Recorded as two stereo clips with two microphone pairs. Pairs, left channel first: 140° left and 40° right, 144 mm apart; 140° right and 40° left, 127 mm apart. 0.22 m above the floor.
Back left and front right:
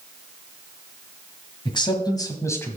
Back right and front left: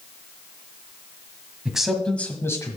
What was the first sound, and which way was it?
A man speaking, 120° left.